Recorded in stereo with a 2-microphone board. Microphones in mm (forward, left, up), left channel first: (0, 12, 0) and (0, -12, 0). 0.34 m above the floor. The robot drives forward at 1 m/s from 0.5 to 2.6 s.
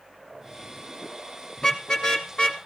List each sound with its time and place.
1.6 s a car horn: 30° left (ahead or behind), 3 m; by 2.6 s 45° left (ahead or behind), 2 m